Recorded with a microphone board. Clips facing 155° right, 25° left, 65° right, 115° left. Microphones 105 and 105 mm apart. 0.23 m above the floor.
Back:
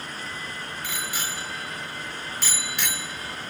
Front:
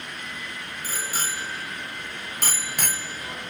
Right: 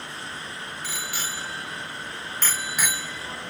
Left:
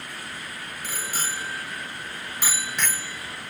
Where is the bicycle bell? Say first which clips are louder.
Front 3 dB, left 3 dB; 70° left, 2.5 m; by 3.5 s 35° right, 1.3 m.